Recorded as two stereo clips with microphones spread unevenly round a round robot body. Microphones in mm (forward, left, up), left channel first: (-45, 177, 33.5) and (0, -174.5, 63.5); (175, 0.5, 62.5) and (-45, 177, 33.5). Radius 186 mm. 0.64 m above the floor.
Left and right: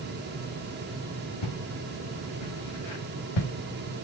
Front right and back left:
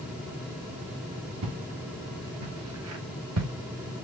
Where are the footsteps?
115° left, 4.5 m; by 3.5 s 110° left, 3.5 m.